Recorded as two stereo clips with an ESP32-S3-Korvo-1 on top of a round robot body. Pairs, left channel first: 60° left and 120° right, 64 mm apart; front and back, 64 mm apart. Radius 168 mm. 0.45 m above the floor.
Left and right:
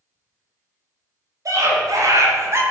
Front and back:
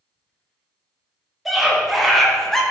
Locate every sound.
1.4 s a scream: 90° right, 3.5 m; by 2.6 s 85° right, 2 m